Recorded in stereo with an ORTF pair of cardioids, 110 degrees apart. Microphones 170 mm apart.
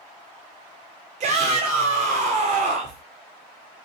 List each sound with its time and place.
1.2 s a shout: 45° right, 0.8 m